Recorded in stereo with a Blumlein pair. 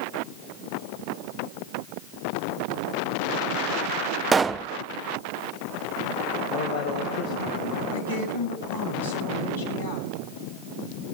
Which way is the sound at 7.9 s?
70° left.